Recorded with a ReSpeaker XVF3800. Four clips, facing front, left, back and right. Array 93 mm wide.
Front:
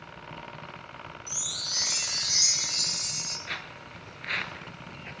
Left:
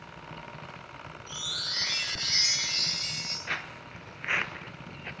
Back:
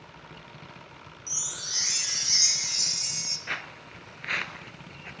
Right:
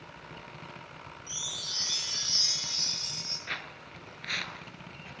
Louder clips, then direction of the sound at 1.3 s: Left 4 dB, front 1 dB; 115° left.